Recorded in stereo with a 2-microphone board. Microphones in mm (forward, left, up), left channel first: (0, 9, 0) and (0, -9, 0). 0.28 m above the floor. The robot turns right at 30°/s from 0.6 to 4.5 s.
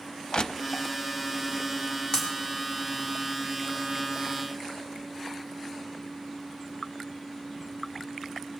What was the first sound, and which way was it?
Crushing, 50° left (ahead or behind).